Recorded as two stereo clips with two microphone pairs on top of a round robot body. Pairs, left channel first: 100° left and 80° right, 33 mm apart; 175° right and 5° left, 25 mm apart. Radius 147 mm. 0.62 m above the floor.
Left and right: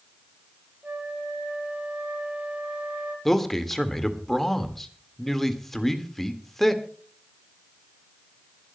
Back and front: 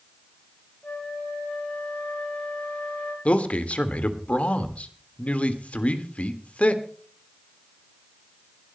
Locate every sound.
0.8 s a flute: 130° right, 2 m
3.2 s a man speaking: straight behind, 1.8 m